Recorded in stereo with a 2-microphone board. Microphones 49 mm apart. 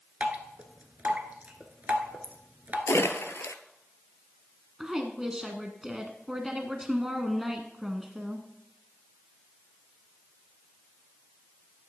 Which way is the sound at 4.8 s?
15° right (ahead or behind).